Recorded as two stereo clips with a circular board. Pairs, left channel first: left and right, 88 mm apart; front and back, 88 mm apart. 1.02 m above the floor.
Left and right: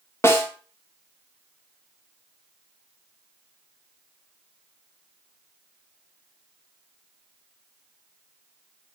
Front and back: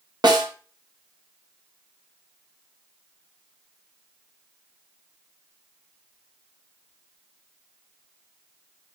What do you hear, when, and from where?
0.2 s a snare drum: 150° left, 1.1 m